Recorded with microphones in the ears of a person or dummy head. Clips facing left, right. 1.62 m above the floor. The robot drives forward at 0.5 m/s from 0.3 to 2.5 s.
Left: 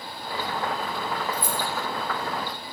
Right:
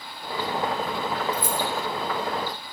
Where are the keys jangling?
50° right (ahead or behind), 2.5 m; by 1.6 s 45° right (ahead or behind), 2.5 m.